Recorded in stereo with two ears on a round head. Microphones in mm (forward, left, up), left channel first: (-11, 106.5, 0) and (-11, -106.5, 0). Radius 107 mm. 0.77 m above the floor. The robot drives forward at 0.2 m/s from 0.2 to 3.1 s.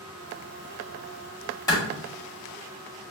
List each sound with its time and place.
1.7 s a clap: 15° left (ahead or behind), 1.7 m